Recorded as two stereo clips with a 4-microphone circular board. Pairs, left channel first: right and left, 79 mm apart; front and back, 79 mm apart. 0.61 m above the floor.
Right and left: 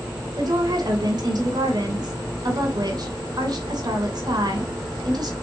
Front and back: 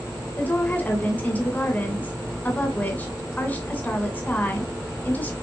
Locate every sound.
0.4 s a woman speaking: 65° left, 2.5 m